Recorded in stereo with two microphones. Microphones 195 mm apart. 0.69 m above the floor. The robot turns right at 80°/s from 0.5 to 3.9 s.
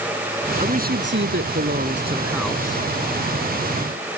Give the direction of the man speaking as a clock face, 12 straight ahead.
5 o'clock.